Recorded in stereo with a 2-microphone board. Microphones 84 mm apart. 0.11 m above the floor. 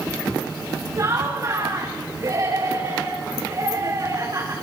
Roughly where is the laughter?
Right.